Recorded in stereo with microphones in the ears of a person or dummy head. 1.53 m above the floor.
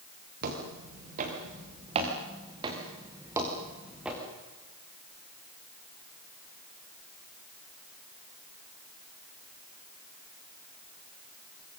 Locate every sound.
0.4 s footsteps: 50° right (ahead or behind), 6.5 m; by 4.2 s centre (ahead or behind), 5.5 m